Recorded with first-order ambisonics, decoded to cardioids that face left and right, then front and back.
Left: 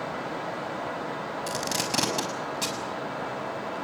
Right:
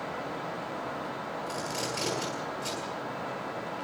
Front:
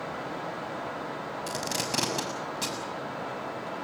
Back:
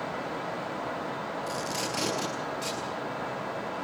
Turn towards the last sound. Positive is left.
turn(degrees=60)